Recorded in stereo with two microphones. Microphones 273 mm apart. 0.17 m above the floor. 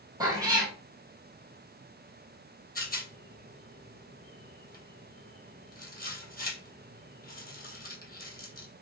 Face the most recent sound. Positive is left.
turn(degrees=35)  # may be behind; listen again after turning